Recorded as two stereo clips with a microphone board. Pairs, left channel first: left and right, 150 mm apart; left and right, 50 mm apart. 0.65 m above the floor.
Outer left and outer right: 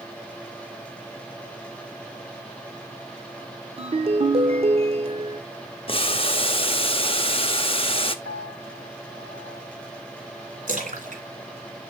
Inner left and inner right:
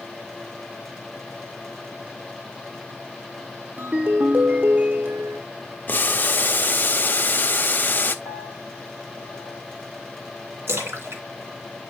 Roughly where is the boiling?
Left.